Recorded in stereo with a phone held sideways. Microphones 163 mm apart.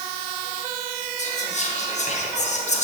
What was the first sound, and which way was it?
Whispering, 45° left (ahead or behind).